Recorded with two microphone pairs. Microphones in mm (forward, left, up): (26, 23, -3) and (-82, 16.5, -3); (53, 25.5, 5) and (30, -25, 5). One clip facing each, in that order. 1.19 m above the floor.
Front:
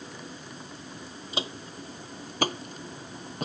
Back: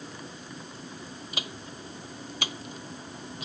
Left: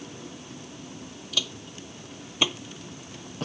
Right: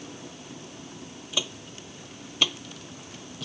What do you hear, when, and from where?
1.3 s footsteps: 50° right; by 3.5 s 30° left